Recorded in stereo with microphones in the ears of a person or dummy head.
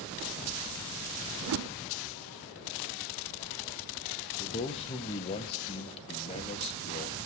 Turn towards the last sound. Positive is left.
turn(degrees=30)  # may be behind; listen again after turning